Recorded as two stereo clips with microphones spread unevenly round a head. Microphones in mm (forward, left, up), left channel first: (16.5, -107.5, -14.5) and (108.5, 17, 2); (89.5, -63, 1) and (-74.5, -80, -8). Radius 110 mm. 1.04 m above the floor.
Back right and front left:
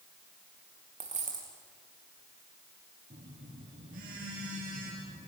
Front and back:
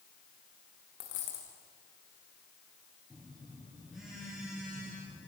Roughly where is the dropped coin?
Ahead.